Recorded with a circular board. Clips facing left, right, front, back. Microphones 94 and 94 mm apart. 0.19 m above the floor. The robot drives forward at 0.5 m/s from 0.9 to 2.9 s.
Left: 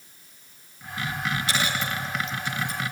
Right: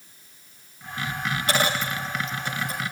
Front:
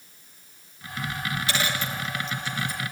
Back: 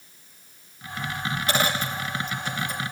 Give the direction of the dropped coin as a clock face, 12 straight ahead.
4 o'clock.